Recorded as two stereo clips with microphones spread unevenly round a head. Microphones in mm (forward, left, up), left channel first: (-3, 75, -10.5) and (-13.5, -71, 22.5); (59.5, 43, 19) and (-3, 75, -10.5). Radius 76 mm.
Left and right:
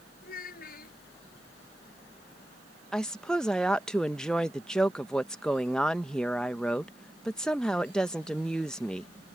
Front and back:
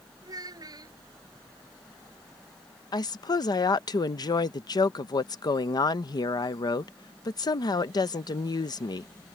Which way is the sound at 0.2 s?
120° left.